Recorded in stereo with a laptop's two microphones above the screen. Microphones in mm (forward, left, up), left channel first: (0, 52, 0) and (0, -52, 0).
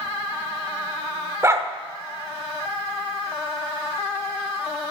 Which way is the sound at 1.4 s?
25° right (ahead or behind).